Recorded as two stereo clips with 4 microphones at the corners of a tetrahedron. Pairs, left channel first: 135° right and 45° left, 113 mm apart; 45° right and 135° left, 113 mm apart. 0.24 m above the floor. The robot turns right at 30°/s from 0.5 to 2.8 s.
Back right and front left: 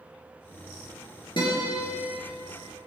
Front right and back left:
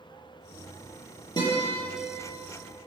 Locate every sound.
1.4 s a guitar: 90° right, 6 m; by 1.9 s 75° right, 6 m